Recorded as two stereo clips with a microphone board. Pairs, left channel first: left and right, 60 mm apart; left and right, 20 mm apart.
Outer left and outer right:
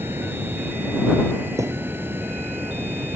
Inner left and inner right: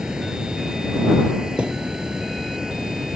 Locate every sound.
0.0 s running water: 35° right (ahead or behind)
1.6 s a thud: 60° right (ahead or behind)